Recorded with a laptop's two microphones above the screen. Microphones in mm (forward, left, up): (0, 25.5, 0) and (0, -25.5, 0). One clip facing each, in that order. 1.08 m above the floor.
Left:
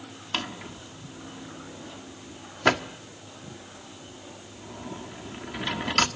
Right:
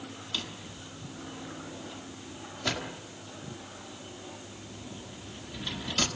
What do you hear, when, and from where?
0.3 s a drawer: 65° left (ahead or behind), 1.5 m